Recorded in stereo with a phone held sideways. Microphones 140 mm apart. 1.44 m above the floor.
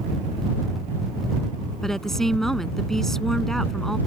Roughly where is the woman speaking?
Centre.